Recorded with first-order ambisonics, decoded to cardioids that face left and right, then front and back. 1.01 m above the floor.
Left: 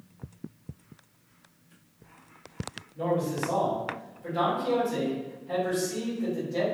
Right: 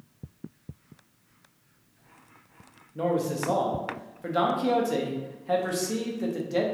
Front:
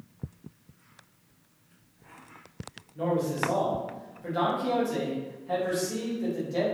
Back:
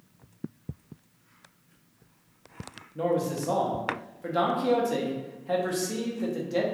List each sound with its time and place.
3.0 s a man speaking: 120° right, 0.6 m